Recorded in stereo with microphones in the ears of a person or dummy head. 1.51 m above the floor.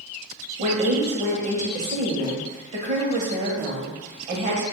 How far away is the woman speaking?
About 0.7 m.